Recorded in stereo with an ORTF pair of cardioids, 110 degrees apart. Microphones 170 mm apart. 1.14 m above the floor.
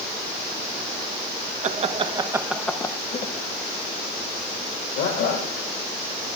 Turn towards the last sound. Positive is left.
turn(degrees=80)